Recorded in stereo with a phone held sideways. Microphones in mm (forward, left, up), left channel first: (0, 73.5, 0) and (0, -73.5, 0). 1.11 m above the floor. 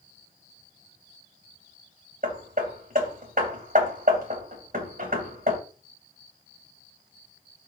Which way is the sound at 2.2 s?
70° right (ahead or behind).